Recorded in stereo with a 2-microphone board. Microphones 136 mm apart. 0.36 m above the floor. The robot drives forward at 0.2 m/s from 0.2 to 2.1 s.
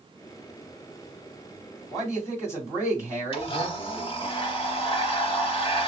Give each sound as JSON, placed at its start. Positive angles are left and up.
{"t": 1.9, "sound": "a man speaking", "side_deg": 20, "distance_m": 2.0}
{"t": 3.3, "sound": "a blender", "side_deg": 40, "distance_m": 0.8}